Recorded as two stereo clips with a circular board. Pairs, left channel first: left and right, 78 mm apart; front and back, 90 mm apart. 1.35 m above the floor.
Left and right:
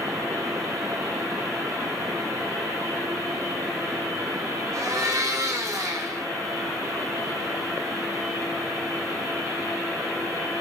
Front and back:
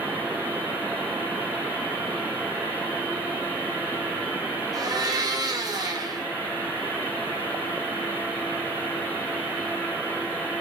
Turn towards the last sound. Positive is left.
turn(degrees=-135)